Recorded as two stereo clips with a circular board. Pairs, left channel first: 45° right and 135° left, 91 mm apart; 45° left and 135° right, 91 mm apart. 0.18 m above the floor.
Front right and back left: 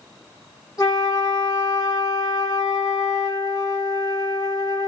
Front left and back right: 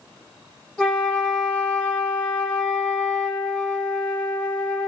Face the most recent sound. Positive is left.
turn(degrees=-30)